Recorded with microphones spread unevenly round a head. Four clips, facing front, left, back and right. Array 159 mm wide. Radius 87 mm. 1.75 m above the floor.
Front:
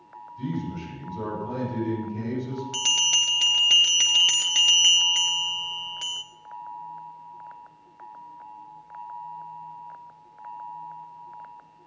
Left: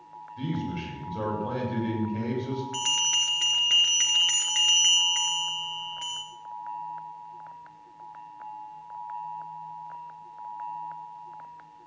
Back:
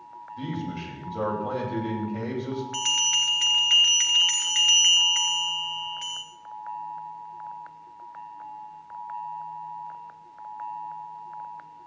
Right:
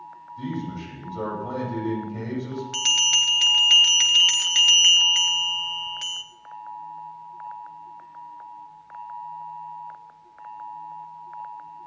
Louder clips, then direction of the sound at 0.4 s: Right 1 dB, front 1 dB; 150° left.